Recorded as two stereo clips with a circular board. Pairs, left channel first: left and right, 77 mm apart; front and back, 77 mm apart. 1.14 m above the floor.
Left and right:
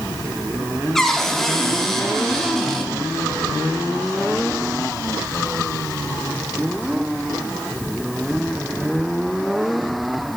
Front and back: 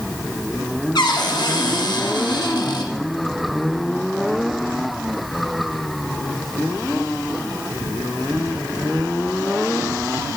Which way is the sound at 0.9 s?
5° left.